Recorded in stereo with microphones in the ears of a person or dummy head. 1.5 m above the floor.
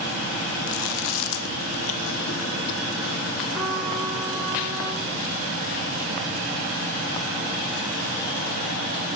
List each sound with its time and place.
0.7 s chewing: 80° left, 0.9 m
3.5 s a trumpet: 5° right (ahead or behind), 2 m